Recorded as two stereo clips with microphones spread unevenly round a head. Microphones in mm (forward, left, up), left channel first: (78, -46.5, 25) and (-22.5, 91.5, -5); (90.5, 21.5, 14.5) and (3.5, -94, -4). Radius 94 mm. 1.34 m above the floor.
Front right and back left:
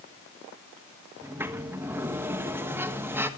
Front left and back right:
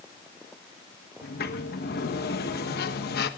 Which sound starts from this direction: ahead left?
A sliding door, at 1.2 s.